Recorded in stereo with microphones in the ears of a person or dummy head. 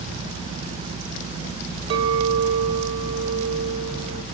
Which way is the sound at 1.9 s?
35° right (ahead or behind).